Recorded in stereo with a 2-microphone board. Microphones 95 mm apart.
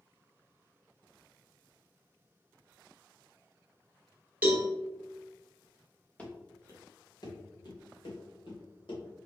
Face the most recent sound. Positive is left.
turn(degrees=75)  # may be behind; listen again after turning